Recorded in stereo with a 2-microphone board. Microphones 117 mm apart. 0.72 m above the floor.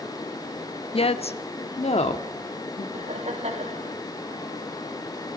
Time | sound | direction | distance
0.9 | a woman speaking | 55° left (ahead or behind) | 0.9 m
2.9 | laughter | 80° right | 4 m